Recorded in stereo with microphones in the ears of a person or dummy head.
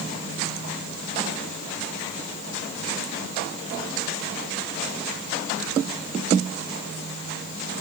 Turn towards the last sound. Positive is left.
No sound to turn to.